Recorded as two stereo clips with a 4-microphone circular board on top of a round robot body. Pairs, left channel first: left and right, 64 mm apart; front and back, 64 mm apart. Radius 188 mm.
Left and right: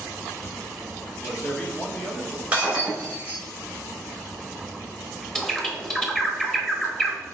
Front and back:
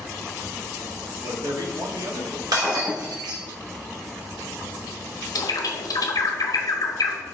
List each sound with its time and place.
1.2 s a man speaking: 160° left, 1.5 m
2.5 s breaking glass: 160° right, 2.5 m
5.3 s a bird: 5° left, 1.4 m